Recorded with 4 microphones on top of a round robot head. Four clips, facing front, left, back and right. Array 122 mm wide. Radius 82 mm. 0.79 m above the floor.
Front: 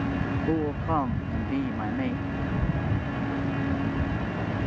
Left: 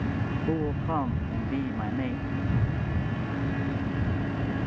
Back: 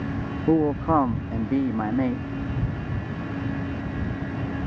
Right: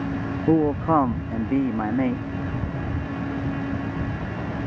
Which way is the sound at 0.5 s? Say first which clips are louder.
Right 11 dB, back 8 dB; 125° right.